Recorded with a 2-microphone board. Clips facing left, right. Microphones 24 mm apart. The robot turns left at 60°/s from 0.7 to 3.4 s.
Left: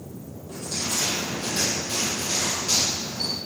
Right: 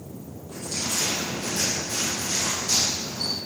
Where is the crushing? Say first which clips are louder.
Even; 170° left, 5 m; by 3.4 s 10° left, 5 m.